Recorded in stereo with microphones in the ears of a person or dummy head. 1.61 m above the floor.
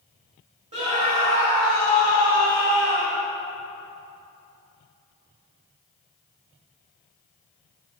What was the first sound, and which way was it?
A scream, 30° right (ahead or behind).